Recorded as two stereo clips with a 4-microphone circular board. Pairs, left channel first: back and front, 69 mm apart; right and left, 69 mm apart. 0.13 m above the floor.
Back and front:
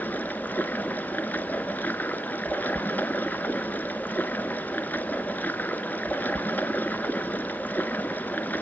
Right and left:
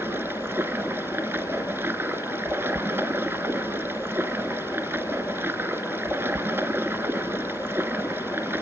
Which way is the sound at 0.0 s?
130° left.